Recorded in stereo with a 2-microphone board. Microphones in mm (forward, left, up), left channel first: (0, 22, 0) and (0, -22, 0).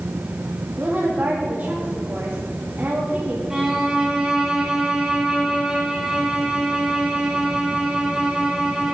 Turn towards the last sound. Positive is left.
turn(degrees=-15)  # may be behind; listen again after turning